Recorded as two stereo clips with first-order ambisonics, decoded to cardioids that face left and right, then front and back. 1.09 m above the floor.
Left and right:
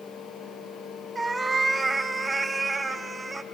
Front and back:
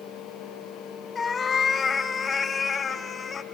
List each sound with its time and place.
1.1 s a cat meowing: 30° right, 0.6 m